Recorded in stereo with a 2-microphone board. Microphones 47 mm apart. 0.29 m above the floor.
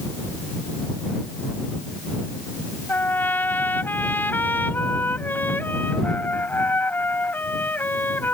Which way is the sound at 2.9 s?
45° left (ahead or behind).